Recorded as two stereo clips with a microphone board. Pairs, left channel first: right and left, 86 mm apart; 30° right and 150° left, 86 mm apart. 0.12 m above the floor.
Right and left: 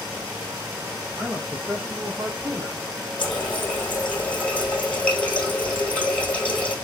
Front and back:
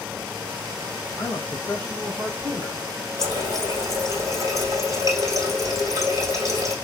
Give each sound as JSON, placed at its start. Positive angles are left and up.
{"t": 1.1, "sound": "a man speaking", "azimuth_deg": 30, "distance_m": 2.0}
{"t": 3.2, "sound": "a running tap", "azimuth_deg": -160, "distance_m": 1.8}